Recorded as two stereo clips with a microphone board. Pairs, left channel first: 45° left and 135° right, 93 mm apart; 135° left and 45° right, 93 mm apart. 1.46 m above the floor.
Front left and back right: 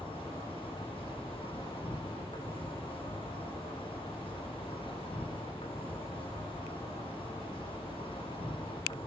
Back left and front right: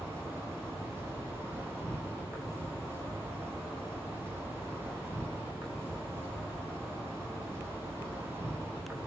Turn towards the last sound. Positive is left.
turn(degrees=25)